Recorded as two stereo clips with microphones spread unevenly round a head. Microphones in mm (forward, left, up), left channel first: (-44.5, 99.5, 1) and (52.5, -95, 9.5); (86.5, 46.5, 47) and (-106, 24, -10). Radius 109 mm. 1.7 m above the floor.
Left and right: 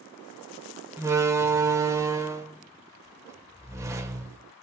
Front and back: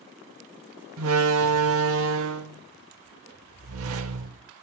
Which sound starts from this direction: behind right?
A door slam, at 1.0 s.